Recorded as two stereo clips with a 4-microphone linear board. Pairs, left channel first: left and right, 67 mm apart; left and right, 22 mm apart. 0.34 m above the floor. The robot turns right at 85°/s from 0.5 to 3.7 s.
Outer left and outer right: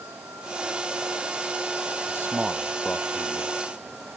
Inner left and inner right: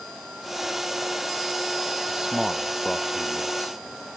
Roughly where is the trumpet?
No trumpet in this recording.